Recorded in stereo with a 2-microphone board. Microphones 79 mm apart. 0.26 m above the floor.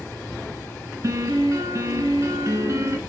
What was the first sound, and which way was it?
A piano, 40° right (ahead or behind).